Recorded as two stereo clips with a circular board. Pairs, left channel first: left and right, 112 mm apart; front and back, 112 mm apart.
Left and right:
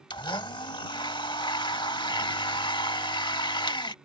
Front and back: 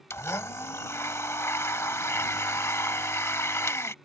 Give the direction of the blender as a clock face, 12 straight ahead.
10 o'clock.